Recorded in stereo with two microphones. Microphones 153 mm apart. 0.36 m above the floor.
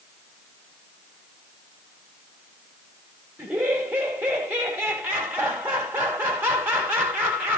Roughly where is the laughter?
Centre.